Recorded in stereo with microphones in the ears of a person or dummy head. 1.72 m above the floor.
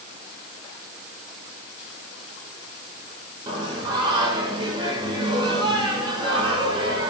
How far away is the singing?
About 3.5 m.